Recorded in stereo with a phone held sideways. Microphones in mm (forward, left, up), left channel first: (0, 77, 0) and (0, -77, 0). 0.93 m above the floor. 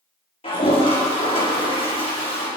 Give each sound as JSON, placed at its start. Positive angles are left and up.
{"t": 0.4, "sound": "a toilet flushing", "side_deg": 35, "distance_m": 5.0}